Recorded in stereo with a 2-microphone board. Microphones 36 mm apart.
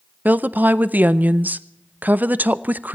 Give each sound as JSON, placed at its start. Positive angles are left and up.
{"t": 0.2, "sound": "a woman speaking", "side_deg": -55, "distance_m": 0.6}